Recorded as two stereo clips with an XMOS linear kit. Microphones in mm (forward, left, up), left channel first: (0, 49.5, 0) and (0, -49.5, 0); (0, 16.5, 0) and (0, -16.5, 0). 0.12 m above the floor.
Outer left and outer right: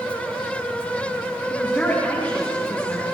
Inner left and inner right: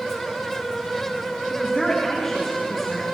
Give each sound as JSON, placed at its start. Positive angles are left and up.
{"t": 1.5, "sound": "a man speaking", "side_deg": 10, "distance_m": 10.0}